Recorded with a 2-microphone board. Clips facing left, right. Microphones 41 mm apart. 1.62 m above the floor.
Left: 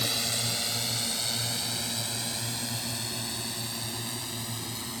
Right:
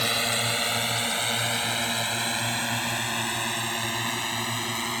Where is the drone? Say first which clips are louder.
Right 6 dB; 40° right (ahead or behind); by 5.0 s 65° right (ahead or behind).